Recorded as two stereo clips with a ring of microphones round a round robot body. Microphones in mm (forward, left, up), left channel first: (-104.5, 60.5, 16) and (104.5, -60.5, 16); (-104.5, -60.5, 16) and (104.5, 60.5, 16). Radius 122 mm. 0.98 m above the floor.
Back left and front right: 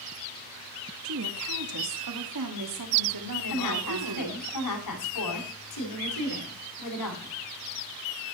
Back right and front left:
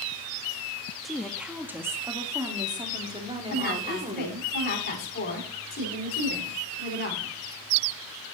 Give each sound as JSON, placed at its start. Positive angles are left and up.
{"t": 1.0, "sound": "a woman speaking", "azimuth_deg": -60, "distance_m": 1.8}
{"t": 3.5, "sound": "a woman speaking", "azimuth_deg": 155, "distance_m": 10.0}